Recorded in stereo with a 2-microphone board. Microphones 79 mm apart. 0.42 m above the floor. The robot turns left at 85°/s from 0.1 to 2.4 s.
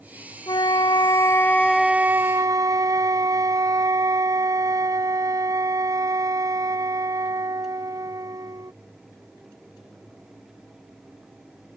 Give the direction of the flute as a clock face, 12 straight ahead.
8 o'clock.